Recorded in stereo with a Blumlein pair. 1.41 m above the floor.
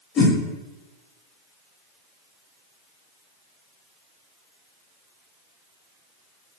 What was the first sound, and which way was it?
A whoosh, 25° left.